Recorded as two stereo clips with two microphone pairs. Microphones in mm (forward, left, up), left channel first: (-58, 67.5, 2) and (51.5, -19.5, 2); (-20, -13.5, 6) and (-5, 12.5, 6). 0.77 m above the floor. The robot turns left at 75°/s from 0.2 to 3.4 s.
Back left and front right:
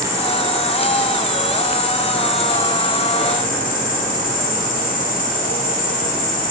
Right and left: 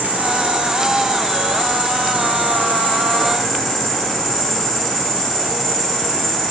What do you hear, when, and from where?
0.0 s an insect: 35° left, 0.8 m; by 6.5 s 155° left, 0.8 m